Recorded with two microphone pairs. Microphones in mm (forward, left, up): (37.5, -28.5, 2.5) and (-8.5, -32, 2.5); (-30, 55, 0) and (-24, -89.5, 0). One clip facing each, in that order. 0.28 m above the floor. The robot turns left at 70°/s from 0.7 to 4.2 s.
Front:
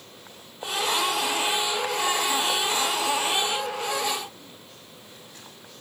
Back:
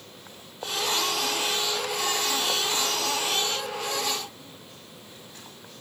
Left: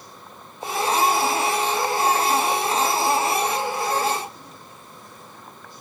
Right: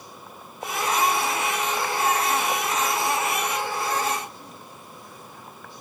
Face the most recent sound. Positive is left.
No sound to turn to.